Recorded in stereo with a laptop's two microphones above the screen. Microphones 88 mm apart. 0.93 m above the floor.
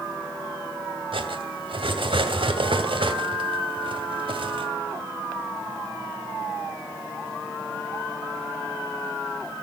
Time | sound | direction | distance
1.1 | cutlery clinking | 85° right | 2.5 m